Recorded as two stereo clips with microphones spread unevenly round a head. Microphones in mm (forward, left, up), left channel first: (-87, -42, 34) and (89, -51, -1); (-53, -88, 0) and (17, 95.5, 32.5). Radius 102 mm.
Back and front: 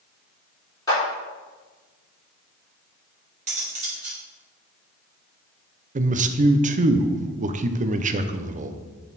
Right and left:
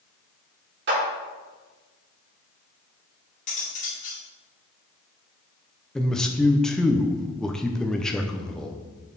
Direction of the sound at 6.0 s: 30° right.